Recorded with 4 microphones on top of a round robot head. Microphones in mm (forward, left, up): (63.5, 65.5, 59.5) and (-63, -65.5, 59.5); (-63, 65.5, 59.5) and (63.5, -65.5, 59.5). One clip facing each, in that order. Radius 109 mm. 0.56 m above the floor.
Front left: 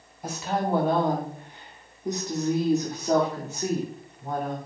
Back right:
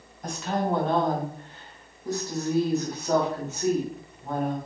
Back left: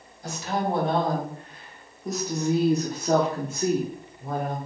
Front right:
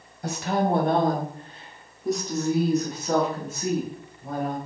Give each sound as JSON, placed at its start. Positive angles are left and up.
{"t": 0.2, "sound": "a woman speaking", "azimuth_deg": -40, "distance_m": 1.5}